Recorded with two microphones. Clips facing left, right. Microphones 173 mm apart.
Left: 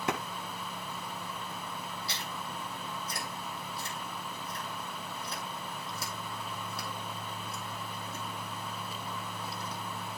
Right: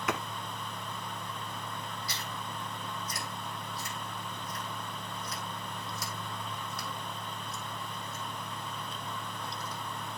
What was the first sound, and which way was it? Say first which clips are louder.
A clap: even; 30° left (ahead or behind).